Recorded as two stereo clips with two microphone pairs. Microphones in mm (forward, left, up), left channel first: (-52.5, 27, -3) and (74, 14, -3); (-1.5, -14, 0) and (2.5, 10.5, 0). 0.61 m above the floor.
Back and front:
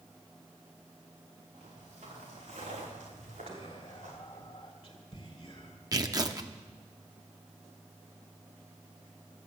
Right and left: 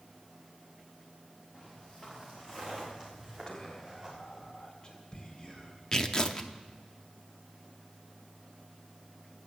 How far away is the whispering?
About 1.9 m.